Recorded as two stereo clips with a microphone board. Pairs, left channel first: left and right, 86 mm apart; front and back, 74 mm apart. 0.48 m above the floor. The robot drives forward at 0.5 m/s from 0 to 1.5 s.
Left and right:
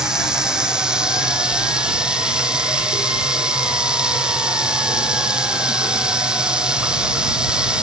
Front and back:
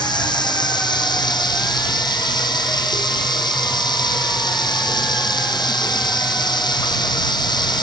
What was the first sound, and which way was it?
Running water, 5° right.